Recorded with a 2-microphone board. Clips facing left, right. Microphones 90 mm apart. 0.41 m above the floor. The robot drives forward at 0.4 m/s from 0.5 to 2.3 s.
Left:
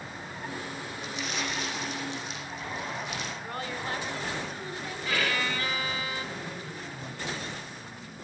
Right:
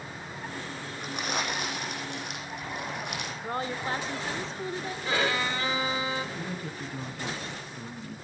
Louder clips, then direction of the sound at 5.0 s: Right 2 dB; 25° right (ahead or behind).